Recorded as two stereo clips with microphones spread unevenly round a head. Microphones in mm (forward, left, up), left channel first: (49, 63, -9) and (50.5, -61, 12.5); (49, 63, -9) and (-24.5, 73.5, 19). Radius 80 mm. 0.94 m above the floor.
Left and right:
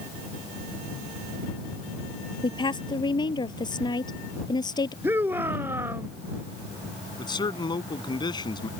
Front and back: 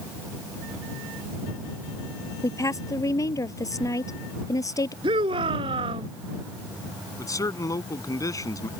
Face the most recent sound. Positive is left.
turn(degrees=35)